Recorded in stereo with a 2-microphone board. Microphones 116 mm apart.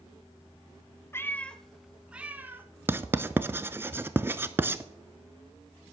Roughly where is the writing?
Centre.